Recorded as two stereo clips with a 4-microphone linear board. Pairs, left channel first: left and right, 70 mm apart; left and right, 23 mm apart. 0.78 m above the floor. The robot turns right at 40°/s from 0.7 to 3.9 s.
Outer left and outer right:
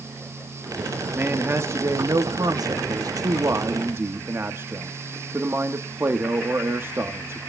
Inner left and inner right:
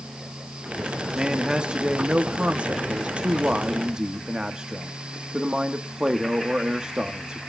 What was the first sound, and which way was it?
A man speaking, 150° right.